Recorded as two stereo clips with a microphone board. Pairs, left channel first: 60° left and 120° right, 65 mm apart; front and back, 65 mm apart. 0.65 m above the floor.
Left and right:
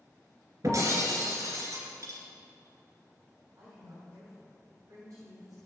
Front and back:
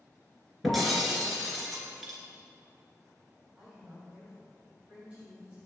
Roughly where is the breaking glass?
Right.